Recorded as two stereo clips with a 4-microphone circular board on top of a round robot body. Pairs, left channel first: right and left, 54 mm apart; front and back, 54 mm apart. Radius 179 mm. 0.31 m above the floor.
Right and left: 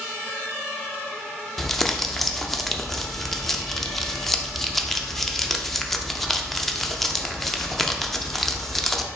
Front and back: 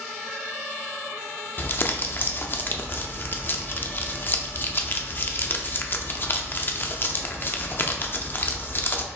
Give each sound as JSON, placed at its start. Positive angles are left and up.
{"t": 1.6, "sound": "crumpling", "azimuth_deg": -10, "distance_m": 0.7}